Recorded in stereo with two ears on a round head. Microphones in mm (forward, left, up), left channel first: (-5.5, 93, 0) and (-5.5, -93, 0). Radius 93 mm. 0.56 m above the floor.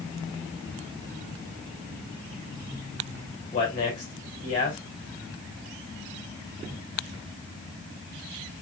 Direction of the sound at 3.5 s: 40° left (ahead or behind).